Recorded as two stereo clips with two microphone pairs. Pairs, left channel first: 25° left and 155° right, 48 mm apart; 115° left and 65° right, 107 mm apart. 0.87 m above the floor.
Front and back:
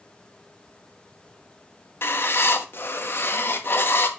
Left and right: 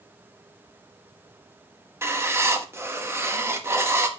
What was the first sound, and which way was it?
Writing, straight ahead.